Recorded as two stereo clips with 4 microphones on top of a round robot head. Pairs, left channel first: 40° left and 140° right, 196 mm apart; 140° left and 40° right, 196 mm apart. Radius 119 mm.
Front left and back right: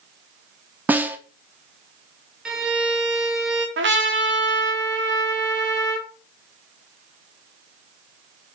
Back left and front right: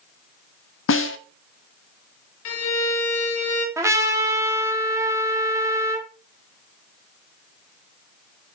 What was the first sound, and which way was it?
A snare drum, 140° left.